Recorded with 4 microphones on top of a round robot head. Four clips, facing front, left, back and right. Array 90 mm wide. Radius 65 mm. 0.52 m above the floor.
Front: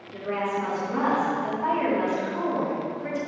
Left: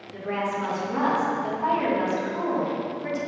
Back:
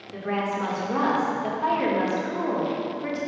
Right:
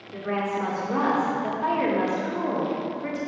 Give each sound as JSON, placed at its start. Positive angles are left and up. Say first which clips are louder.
{"t": 0.1, "sound": "a woman speaking", "louder": "right 1 dB, even", "azimuth_deg": -135, "distance_m": 1.9}